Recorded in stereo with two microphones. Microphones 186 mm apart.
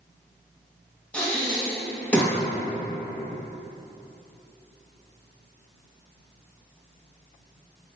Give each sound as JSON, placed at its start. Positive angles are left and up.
{"t": 1.1, "sound": "breathing", "side_deg": 5, "distance_m": 1.7}